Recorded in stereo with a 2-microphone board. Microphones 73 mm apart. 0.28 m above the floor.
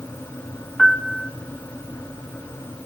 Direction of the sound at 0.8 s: 5° left (ahead or behind).